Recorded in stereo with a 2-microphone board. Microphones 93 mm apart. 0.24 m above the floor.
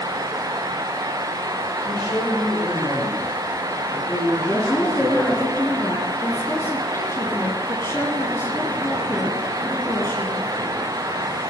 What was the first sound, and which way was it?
A man speaking, 15° left (ahead or behind).